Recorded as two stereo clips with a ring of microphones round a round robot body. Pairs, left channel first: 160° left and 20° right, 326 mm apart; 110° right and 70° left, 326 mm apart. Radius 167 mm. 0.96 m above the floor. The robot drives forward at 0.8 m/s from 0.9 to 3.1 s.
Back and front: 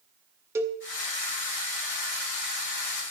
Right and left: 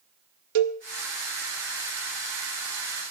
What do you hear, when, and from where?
0.6 s a cowbell: 60° left, 0.8 m